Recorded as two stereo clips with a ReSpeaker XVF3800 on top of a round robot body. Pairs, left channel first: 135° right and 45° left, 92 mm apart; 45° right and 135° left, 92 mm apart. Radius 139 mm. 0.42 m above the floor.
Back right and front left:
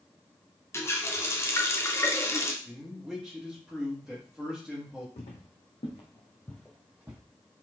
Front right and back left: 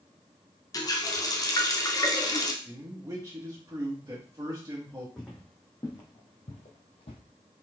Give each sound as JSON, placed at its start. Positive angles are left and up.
{"t": 0.7, "sound": "a running tap", "azimuth_deg": -80, "distance_m": 1.0}
{"t": 2.6, "sound": "a man speaking", "azimuth_deg": 135, "distance_m": 1.5}
{"t": 5.2, "sound": "footsteps", "azimuth_deg": -130, "distance_m": 1.3}